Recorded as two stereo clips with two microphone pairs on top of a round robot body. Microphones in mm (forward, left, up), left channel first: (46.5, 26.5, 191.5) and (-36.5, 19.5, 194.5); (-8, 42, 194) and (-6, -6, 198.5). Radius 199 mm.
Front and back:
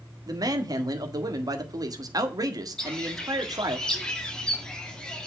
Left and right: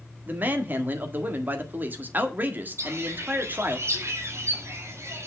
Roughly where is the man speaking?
Behind right.